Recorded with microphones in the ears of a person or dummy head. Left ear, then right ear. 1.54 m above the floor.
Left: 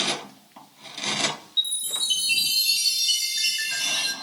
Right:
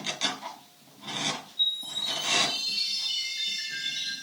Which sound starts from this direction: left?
A chime, at 1.6 s.